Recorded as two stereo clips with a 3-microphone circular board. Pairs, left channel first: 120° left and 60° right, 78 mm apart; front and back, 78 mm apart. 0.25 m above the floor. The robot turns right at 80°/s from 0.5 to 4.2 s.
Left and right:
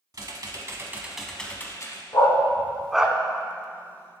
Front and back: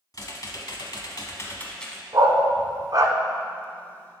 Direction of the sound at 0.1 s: 30° right.